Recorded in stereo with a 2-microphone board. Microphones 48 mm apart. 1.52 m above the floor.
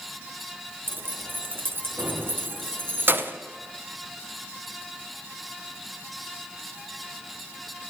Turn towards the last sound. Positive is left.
turn(degrees=-45)  # may be behind; listen again after turning